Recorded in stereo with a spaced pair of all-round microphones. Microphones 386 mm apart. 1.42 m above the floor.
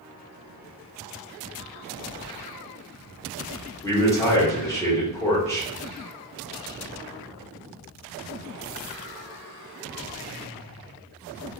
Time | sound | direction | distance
3.8 | a man speaking | 10° left (ahead or behind) | 1.1 m